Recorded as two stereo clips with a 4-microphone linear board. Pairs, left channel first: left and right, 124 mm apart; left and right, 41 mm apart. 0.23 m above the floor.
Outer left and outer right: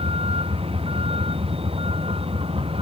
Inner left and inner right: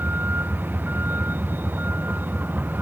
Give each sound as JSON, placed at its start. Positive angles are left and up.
{"t": 0.0, "sound": "a vehicle", "side_deg": -45}